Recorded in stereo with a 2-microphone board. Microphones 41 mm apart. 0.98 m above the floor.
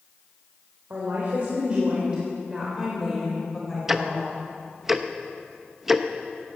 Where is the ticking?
5° right (ahead or behind), 0.8 m.